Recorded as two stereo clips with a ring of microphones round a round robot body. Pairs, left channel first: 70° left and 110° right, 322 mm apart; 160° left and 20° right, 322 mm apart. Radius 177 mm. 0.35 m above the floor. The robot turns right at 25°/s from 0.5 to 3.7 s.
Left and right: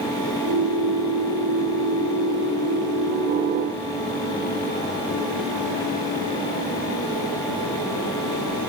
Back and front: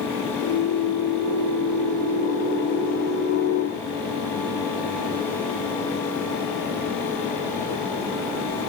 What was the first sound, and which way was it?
Only background noise.